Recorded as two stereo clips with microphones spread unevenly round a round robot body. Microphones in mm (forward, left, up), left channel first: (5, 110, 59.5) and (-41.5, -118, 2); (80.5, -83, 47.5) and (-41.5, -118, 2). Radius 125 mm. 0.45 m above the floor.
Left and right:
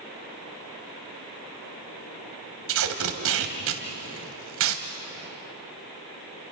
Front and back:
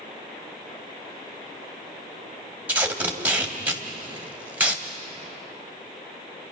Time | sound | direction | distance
2.7 | tape being pulled | 95° right | 2.5 m